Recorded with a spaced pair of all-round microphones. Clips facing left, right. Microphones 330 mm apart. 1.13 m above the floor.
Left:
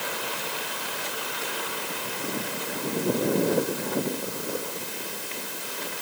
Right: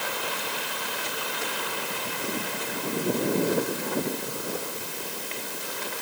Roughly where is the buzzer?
No buzzer in this recording.